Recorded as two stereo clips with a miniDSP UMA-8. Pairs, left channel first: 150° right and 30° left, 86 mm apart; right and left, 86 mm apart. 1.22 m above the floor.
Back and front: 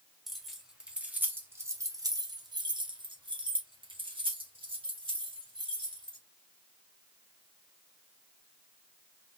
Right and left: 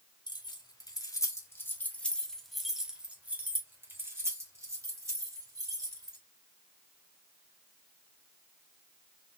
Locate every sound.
0.3 s keys jangling: 60° right, 1.4 m; by 6.2 s 45° left, 2.5 m